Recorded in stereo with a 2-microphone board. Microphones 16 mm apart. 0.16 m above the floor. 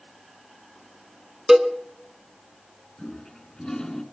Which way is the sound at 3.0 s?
45° left (ahead or behind).